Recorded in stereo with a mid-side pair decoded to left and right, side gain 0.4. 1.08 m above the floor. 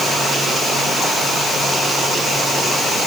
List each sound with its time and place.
Only background noise.